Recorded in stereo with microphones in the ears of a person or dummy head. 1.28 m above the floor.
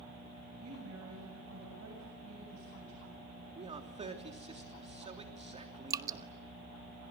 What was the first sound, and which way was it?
A woman speaking, 75° right (ahead or behind).